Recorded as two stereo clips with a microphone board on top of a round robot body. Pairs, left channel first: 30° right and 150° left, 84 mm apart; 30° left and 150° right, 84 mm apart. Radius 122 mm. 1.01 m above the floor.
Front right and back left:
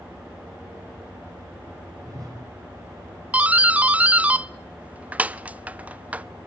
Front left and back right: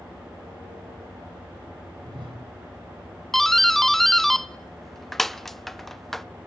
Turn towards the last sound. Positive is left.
turn(degrees=110)